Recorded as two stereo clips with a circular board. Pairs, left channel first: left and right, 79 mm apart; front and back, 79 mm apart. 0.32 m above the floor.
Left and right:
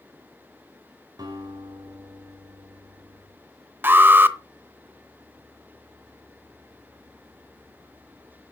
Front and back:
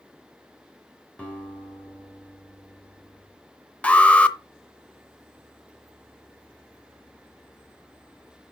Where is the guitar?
75° right, 2.5 m.